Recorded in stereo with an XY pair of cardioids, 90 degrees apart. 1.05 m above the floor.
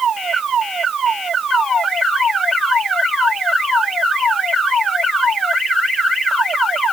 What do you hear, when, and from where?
Only background noise.